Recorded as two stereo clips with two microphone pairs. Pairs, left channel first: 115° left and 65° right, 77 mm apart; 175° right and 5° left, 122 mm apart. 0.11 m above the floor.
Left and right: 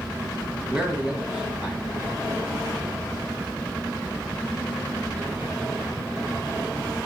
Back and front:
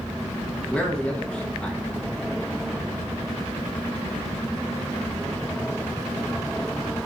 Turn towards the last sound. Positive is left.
turn(degrees=-105)